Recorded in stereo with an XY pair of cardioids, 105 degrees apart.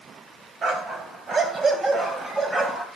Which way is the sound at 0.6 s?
50° right.